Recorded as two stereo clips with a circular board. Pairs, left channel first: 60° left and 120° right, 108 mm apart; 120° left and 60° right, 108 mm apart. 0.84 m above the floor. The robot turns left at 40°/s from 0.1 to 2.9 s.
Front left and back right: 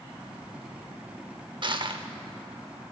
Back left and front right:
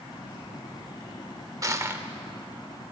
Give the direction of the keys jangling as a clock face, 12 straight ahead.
I don't hear keys jangling.